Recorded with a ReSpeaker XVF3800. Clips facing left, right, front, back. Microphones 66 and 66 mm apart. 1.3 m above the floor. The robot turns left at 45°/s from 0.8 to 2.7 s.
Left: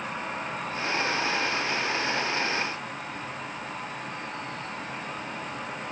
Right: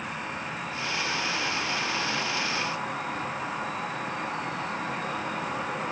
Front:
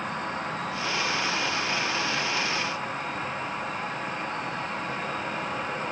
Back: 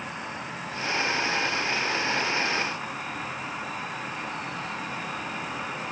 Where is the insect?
10° left, 1.3 m; by 5.9 s 75° right, 1.3 m.